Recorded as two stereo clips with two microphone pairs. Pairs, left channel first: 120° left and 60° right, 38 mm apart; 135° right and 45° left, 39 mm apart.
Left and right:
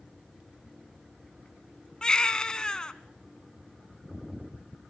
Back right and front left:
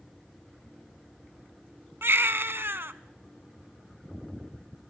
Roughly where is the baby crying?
Ahead left.